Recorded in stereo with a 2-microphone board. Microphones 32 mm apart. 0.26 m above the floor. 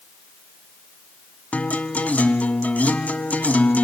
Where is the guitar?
60° left (ahead or behind), 1.1 m.